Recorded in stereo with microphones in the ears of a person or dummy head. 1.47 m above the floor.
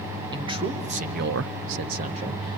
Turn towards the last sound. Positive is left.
turn(degrees=-25)  # may be behind; listen again after turning